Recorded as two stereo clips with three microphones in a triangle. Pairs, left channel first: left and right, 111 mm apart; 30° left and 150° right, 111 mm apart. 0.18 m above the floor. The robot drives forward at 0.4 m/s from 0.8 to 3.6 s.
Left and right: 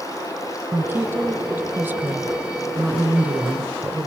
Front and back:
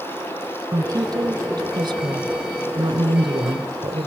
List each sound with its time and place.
0.7 s a woman speaking: 145° right, 1.8 m; by 4.1 s 160° right, 2.5 m